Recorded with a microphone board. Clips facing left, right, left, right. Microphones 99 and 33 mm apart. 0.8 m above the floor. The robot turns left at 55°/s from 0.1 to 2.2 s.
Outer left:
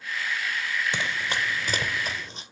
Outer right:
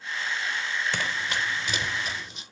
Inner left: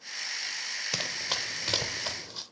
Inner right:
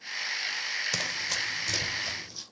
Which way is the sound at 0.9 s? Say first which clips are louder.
Outer left 1 dB, inner right 2 dB; 15° left (ahead or behind).